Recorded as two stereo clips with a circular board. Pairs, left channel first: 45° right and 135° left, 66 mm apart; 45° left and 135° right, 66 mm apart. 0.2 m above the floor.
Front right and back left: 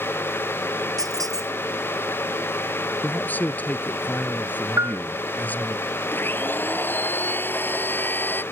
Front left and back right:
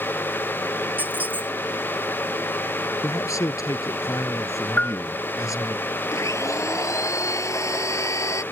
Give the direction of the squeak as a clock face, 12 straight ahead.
7 o'clock.